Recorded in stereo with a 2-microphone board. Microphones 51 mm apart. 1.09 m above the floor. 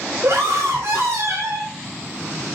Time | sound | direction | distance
0.2 | a scream | 65° right (ahead or behind) | 3.5 m